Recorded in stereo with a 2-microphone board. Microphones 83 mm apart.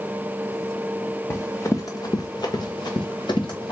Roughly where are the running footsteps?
Left.